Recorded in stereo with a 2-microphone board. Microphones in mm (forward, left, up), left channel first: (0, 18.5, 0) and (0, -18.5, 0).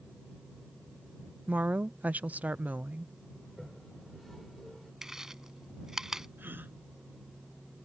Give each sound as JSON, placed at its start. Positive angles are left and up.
{"t": 1.5, "sound": "a woman speaking", "side_deg": -40}
{"t": 3.4, "sound": "a toilet flushing", "side_deg": 0}
{"t": 5.0, "sound": "chewing", "side_deg": -15}
{"t": 6.4, "sound": "a gasp", "side_deg": -65}